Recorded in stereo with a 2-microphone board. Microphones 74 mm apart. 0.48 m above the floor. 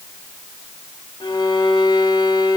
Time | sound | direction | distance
1.2 | a violin | 85° left | 0.9 m